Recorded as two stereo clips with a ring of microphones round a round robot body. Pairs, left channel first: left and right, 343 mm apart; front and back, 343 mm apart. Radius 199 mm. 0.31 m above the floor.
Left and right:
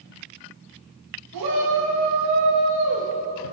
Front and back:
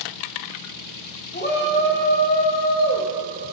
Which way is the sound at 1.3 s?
60° right.